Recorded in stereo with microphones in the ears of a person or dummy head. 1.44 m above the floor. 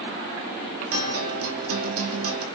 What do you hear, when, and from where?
0.9 s a guitar: 85° right, 3 m